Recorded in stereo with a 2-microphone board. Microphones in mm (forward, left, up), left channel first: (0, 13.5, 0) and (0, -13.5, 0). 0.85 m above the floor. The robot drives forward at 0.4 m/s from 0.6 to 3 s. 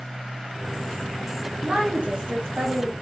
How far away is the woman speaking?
About 1.1 m.